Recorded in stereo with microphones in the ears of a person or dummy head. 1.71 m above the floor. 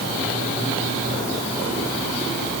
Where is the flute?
No flute in this recording.